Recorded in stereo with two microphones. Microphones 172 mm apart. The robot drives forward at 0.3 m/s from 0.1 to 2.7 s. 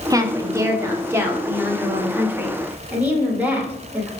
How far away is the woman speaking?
About 0.7 m.